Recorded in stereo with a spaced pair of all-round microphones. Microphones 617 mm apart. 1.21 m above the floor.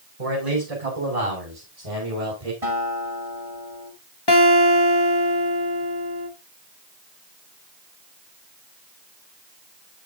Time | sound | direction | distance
0.2 | a man speaking | 85° right | 7.5 m
2.6 | a guitar | 65° right (ahead or behind) | 8.5 m
4.3 | a guitar | 40° left (ahead or behind) | 1.8 m